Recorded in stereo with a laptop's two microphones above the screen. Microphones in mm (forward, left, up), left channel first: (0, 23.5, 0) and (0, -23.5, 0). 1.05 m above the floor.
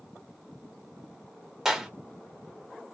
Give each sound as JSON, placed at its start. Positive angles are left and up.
{"t": 1.6, "sound": "a clap", "side_deg": -10, "distance_m": 0.9}